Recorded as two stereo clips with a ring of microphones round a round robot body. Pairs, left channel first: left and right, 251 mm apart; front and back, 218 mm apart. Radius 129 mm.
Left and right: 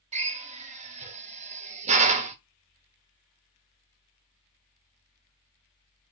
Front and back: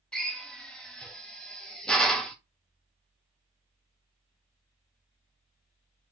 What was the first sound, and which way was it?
A drill, 85° right.